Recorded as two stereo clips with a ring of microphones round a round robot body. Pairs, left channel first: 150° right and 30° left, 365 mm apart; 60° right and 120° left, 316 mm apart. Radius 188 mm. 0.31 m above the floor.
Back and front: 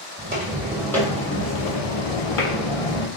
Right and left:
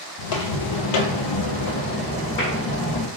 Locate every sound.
0.2 s footsteps: 40° right, 1.0 m; by 3.1 s 150° right, 1.2 m